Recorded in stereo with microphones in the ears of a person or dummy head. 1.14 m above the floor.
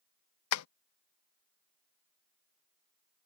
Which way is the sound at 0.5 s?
85° left.